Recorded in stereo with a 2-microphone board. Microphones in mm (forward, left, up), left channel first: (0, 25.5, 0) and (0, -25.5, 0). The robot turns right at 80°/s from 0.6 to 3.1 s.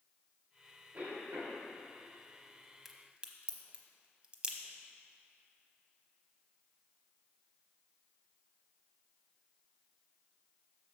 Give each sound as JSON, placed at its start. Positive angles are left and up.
{"t": 0.9, "sound": "a cough", "azimuth_deg": -140, "distance_m": 2.5}
{"t": 2.9, "sound": "a crack", "side_deg": -5, "distance_m": 0.8}